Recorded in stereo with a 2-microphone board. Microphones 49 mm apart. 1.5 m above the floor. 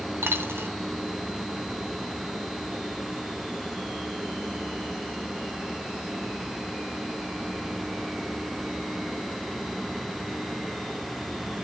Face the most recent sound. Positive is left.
turn(degrees=-60)  # may be behind; listen again after turning